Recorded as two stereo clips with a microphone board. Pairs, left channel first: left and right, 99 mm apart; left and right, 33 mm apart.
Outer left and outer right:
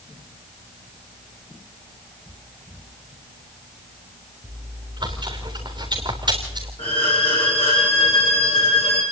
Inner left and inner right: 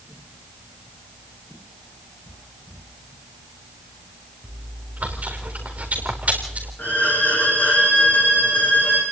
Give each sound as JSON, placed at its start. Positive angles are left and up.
{"t": 4.4, "sound": "chewing", "side_deg": -50, "distance_m": 4.0}
{"t": 6.8, "sound": "a violin", "side_deg": 70, "distance_m": 6.5}